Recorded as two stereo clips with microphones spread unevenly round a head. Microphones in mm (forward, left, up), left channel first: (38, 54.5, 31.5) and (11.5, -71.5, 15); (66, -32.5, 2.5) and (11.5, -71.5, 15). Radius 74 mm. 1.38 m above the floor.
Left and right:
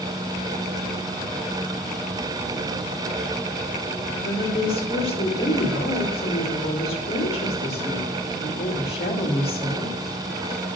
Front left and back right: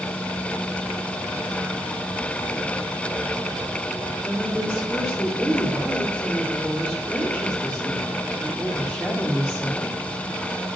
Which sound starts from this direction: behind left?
A woman speaking, at 4.2 s.